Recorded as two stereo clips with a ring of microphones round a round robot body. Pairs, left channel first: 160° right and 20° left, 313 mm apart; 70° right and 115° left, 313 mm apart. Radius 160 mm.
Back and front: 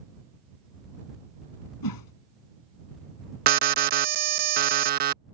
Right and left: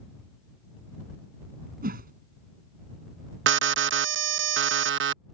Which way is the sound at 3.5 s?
75° left.